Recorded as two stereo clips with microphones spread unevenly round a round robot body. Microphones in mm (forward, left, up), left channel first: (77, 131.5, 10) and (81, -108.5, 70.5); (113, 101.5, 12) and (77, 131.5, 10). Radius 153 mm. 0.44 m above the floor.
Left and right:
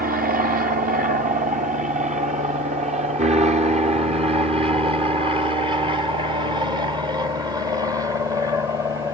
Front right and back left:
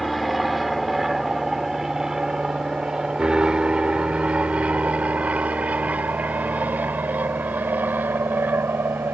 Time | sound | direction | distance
0.0 | an aircraft | 130° right | ?